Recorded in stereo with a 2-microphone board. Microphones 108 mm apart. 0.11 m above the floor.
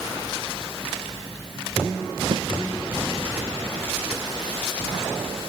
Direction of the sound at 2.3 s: 55° right (ahead or behind).